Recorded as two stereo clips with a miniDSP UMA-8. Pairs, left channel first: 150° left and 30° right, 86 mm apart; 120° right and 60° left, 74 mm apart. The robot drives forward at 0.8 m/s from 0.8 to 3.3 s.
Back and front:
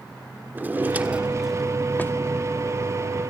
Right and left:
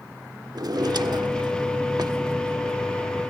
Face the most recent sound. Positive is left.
turn(degrees=135)